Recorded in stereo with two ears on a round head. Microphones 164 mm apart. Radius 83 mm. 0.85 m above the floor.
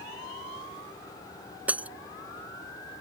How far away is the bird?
I don't hear a bird.